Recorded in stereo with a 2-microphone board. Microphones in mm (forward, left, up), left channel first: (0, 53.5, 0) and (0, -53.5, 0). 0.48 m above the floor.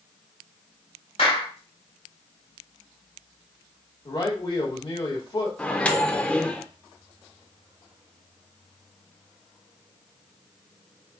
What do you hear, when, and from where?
1.2 s a clap: 65° left (ahead or behind), 1.8 m
4.0 s a man speaking: 45° left (ahead or behind), 2 m
5.6 s a microwave: 10° left (ahead or behind), 0.6 m